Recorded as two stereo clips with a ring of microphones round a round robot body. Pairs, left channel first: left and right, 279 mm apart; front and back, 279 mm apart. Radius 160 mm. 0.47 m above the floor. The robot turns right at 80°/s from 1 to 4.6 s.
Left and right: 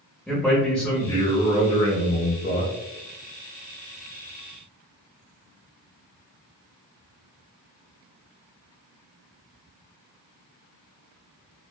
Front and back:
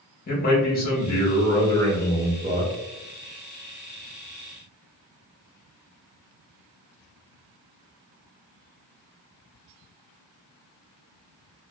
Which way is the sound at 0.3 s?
5° left.